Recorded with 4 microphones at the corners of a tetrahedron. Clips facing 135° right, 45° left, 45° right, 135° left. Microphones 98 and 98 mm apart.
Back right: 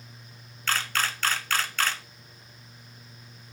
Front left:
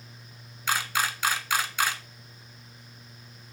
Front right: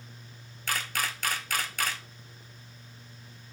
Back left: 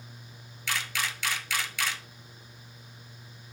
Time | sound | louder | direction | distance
0.7 | a camera shutter | front left 1 dB, front right 1 dB | 30° right | 0.6 m